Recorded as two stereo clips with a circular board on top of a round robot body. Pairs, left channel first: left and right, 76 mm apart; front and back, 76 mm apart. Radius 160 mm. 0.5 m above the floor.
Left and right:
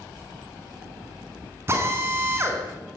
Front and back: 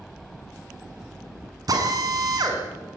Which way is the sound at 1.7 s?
145° right.